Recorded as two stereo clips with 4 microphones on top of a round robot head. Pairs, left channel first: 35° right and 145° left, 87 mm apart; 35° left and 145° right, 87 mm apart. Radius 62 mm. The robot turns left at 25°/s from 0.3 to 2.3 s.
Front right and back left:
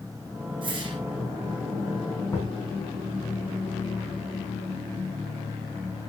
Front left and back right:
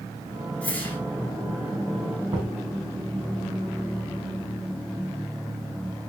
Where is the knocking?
100° right, 5 m.